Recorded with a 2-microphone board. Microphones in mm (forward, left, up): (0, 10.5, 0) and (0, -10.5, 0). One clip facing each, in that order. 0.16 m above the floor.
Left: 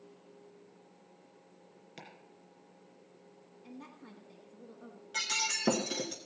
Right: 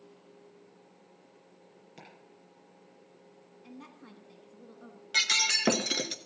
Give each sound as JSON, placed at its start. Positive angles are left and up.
{"t": 2.0, "sound": "chopping", "side_deg": 20, "distance_m": 2.5}
{"t": 3.6, "sound": "a woman speaking", "side_deg": -15, "distance_m": 1.0}
{"t": 5.1, "sound": "breaking glass", "side_deg": -65, "distance_m": 0.6}